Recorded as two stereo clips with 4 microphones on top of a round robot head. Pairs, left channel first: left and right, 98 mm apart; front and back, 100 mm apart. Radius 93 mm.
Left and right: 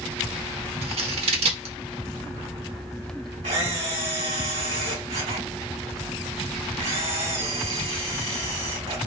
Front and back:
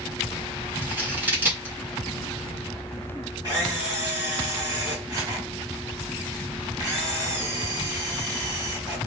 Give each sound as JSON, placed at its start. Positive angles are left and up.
{"t": 0.8, "sound": "scissors", "azimuth_deg": -105, "distance_m": 1.4}
{"t": 3.4, "sound": "a camera shutter", "azimuth_deg": -115, "distance_m": 2.5}